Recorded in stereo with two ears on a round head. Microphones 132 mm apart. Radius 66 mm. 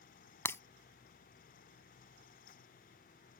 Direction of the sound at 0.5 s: 15° left (ahead or behind).